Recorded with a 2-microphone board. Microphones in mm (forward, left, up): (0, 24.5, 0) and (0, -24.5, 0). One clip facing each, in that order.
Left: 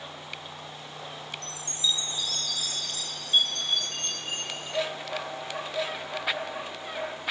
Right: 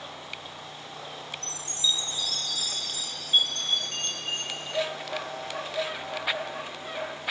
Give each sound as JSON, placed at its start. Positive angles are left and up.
{"t": 1.4, "sound": "a chime", "side_deg": -5, "distance_m": 3.5}